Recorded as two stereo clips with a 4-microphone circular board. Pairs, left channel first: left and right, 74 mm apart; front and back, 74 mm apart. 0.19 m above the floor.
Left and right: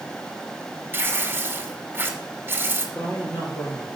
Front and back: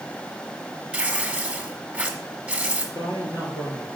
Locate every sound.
0.9 s tearing paper: 120° right, 1.2 m
3.0 s a woman speaking: 30° left, 3.5 m